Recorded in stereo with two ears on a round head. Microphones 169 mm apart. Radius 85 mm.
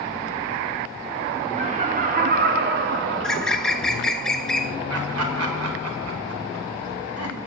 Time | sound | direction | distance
1.6 | laughter | 35° right (ahead or behind) | 1.7 m
3.2 | a bird | 5° left (ahead or behind) | 1.1 m
4.9 | laughter | 80° right | 4.5 m